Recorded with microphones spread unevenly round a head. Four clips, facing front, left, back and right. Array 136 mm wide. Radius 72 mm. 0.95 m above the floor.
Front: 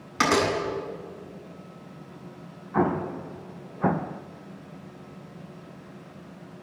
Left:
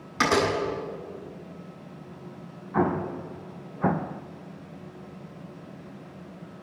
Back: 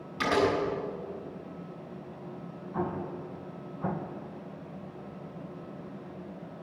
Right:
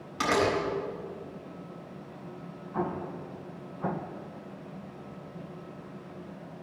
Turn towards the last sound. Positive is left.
turn(degrees=30)